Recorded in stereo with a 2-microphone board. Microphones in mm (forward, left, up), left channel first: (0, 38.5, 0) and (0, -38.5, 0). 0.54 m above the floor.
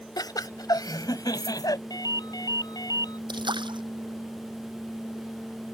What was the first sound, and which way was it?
Laughter, 60° left (ahead or behind).